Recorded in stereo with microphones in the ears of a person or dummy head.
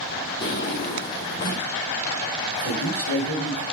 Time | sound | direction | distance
0.4 | a drawer | 20° left (ahead or behind) | 1.4 m
2.5 | a man speaking | 50° left (ahead or behind) | 5.5 m